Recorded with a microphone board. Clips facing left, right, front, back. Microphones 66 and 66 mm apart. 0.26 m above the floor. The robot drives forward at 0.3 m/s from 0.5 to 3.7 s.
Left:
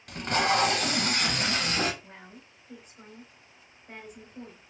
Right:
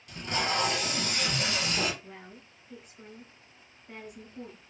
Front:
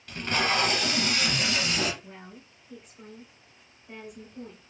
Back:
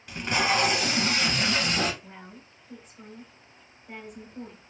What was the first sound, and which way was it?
Tape being pulled, 100° left.